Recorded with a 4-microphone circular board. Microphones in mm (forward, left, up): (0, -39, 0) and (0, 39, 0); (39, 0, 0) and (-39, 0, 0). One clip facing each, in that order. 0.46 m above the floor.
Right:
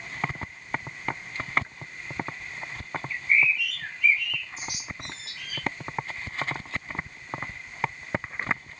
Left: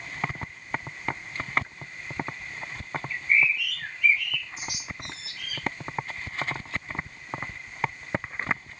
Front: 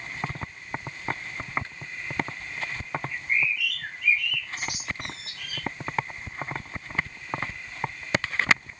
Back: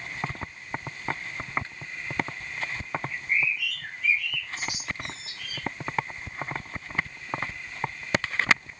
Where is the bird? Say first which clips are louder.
Even, front 1 dB; 5° left, 2.5 m.